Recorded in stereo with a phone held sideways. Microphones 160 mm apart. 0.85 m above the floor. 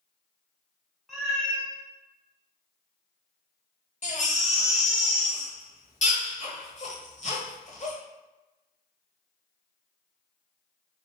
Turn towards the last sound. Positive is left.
turn(degrees=45)  # may be behind; listen again after turning